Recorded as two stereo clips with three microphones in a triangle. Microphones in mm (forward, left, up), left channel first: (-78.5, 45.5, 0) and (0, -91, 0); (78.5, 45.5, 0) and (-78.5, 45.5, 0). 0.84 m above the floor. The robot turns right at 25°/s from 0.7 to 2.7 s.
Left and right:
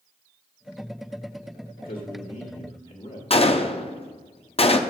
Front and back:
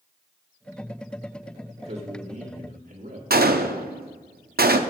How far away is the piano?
No piano in this recording.